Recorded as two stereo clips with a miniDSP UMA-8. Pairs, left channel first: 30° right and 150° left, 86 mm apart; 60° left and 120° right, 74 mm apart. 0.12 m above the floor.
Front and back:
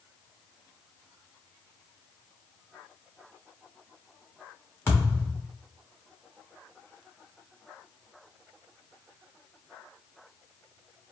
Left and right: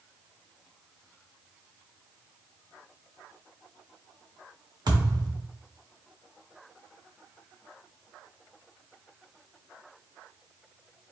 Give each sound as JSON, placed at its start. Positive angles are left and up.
{"t": 4.9, "sound": "a thud", "azimuth_deg": -95, "distance_m": 1.5}